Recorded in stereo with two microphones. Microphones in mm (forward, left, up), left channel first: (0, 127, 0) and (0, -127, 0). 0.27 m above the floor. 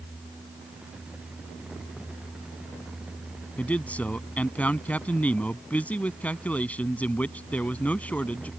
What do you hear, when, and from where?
3.6 s a man speaking: 5° left (ahead or behind)